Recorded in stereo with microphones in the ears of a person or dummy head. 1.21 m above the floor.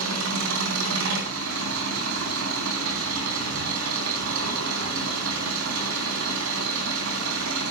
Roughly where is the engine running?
Right.